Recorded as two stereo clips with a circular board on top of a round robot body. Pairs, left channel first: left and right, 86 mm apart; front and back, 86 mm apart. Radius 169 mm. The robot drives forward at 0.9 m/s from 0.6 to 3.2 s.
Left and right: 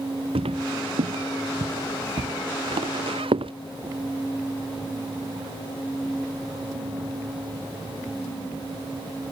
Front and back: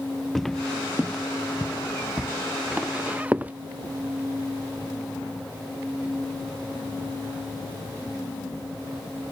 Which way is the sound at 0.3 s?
90° right.